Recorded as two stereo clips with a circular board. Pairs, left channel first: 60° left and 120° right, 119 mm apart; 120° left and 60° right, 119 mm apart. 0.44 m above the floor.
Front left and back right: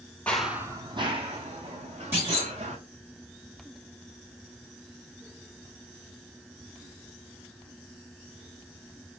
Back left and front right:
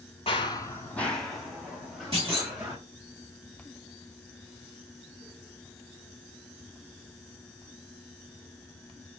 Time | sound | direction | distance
0.3 | running footsteps | 135° left | 0.6 m
2.1 | a clunk | 55° right | 2.5 m